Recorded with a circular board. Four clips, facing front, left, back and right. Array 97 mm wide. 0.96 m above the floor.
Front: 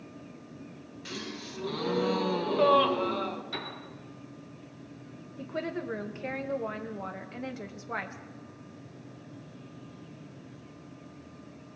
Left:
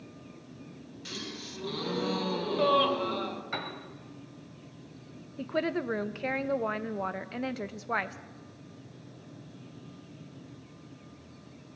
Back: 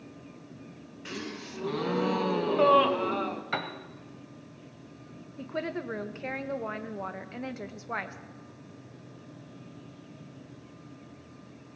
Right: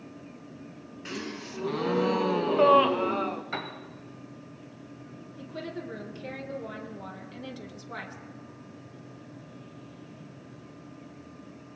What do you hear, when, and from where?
1.1 s a gasp: 115° right, 0.8 m
3.5 s a piano: 170° right, 1.3 m
5.4 s a woman speaking: 100° left, 0.7 m